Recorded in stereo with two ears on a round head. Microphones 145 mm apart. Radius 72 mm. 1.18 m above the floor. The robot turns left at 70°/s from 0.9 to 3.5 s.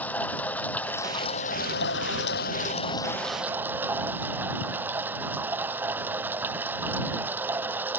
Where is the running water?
170° left; by 8.0 s 10° right.